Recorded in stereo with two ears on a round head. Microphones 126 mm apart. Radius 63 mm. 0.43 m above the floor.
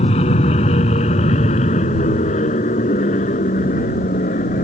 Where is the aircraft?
45° left (ahead or behind); by 4.6 s 50° left (ahead or behind).